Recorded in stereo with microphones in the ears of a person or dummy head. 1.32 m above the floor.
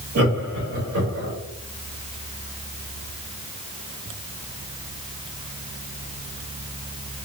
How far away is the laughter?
About 2.0 m.